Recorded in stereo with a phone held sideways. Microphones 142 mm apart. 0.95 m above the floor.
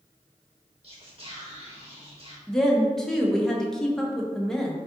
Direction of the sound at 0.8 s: 50° right (ahead or behind).